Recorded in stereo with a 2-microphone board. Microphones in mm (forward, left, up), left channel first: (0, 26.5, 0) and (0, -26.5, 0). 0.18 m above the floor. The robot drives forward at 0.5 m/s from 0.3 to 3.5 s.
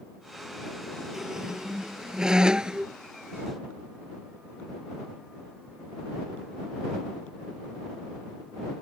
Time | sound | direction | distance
1.1 | a squeak | 10° right (ahead or behind) | ?